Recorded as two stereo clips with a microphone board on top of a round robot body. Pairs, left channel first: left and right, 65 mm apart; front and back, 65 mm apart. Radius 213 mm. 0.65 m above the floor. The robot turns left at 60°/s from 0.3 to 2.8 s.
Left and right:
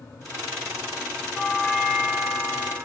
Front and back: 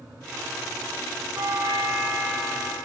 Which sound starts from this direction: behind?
A doorbell, at 1.3 s.